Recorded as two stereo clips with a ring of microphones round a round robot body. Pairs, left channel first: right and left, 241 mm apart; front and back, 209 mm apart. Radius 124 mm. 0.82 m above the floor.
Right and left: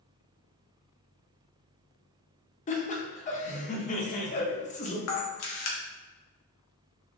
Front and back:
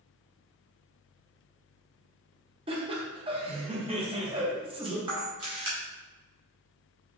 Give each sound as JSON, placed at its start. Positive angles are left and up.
{"t": 2.7, "sound": "laughter", "azimuth_deg": -130, "distance_m": 0.6}
{"t": 5.1, "sound": "a camera shutter", "azimuth_deg": -115, "distance_m": 0.7}